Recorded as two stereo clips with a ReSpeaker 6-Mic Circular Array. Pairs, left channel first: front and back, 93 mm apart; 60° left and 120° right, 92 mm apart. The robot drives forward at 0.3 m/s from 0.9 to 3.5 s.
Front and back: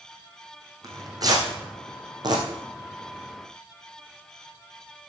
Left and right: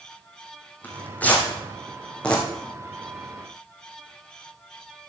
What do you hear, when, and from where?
0.8 s tearing paper: 130° left, 2.5 m; by 2.4 s 140° left, 3 m